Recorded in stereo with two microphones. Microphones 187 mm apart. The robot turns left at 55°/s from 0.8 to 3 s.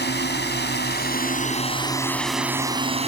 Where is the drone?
85° left; by 3.1 s 35° right.